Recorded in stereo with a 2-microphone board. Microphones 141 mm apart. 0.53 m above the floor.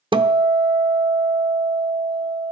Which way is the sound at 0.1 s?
35° right (ahead or behind).